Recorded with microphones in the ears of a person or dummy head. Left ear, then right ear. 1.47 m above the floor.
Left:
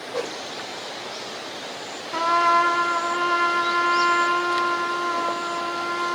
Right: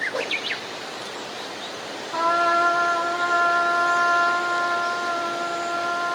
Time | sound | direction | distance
0.1 | a whoosh | 20° right (ahead or behind) | 1.1 m
2.1 | a trumpet | 70° left (ahead or behind) | 2 m